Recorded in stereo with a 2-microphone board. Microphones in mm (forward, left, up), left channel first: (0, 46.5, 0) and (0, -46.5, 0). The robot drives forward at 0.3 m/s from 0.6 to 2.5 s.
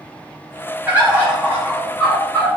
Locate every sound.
0.9 s a bird: 15° right (ahead or behind), 1.0 m; by 2.5 s 10° right (ahead or behind), 1.3 m